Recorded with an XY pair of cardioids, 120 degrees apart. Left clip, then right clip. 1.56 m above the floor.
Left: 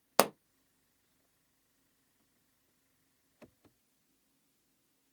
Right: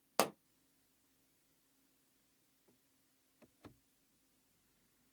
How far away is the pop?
About 0.6 m.